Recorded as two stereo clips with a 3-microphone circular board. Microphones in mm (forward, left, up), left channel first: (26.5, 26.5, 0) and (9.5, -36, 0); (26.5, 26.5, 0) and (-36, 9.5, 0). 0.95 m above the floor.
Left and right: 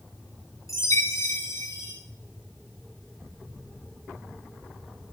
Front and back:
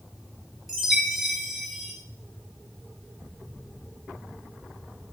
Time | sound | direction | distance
0.7 | a chime | 100° left | 9 m